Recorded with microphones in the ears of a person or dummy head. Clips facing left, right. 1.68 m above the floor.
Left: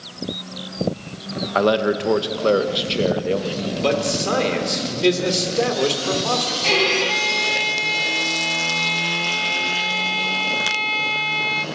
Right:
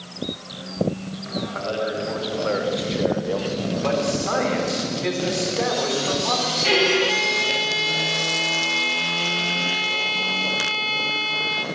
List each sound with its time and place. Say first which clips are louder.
1.6 s a man speaking: left 10 dB; 70° left (ahead or behind), 1.6 m; by 3.7 s 20° left (ahead or behind), 1.9 m
3.8 s a man speaking: left 3 dB; 45° left (ahead or behind), 4 m
6.6 s a violin: right 2 dB; 10° right (ahead or behind), 1.3 m